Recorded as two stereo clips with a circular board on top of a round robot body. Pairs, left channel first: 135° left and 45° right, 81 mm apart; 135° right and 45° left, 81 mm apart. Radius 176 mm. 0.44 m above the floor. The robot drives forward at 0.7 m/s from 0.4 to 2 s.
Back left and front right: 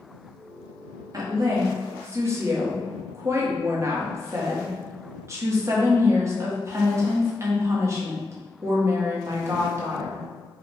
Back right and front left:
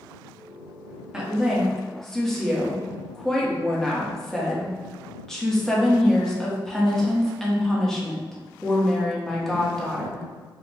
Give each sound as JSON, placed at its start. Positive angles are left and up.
{"t": 1.1, "sound": "a woman speaking", "azimuth_deg": -30, "distance_m": 1.8}